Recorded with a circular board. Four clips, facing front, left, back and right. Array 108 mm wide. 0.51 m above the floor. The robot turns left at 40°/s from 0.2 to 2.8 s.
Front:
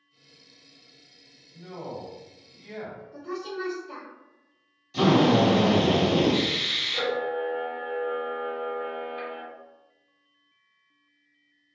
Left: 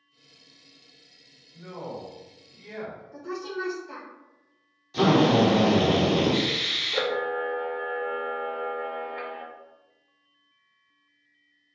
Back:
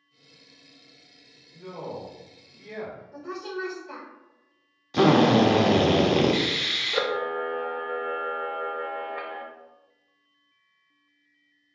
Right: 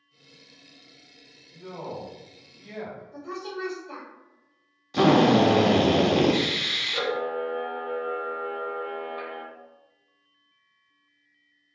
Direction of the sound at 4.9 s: 155° right.